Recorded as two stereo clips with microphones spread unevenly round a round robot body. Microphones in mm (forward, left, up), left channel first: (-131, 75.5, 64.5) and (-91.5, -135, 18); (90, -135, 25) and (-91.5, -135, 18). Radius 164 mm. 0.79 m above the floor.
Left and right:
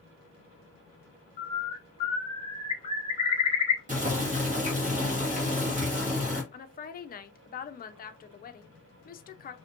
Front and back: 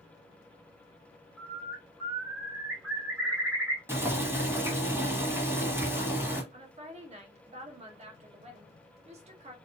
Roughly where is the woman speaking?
Behind left.